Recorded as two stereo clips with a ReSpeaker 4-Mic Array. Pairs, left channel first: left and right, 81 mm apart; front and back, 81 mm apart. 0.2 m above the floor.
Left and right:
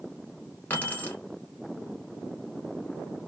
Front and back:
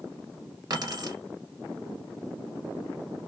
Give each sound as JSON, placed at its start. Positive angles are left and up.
{"t": 0.7, "sound": "keys jangling", "azimuth_deg": 155, "distance_m": 1.3}